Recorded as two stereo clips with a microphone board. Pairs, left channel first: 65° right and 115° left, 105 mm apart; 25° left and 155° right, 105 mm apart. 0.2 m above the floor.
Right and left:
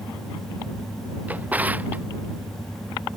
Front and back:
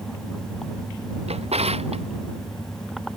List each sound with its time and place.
1.3 s a drawer: 170° right